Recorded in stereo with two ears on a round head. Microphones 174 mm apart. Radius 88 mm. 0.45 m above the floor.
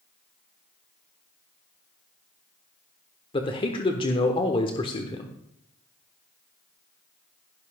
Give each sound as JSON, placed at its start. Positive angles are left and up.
{"t": 3.3, "sound": "a man speaking", "side_deg": 25, "distance_m": 1.1}